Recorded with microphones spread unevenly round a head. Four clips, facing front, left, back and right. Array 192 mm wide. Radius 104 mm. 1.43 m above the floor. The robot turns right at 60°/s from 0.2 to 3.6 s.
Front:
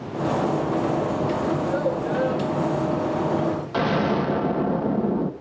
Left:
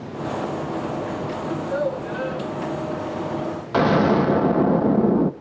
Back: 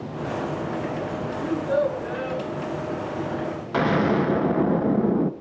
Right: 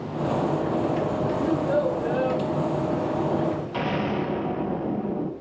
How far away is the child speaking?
About 8 m.